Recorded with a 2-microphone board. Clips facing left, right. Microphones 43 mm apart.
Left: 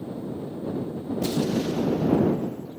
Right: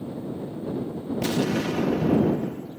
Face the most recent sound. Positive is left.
turn(degrees=-85)